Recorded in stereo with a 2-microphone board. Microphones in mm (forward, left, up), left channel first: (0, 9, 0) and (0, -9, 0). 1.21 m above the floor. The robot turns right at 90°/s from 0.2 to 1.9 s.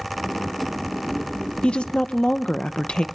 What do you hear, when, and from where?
1.6 s a woman speaking: 80° left, 0.7 m; by 3.0 s 75° left (ahead or behind), 0.7 m